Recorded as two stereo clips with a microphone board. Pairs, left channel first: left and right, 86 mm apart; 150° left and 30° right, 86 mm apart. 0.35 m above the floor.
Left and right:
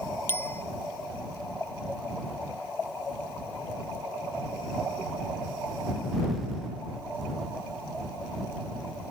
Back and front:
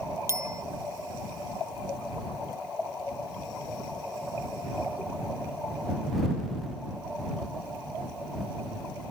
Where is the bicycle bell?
25° left.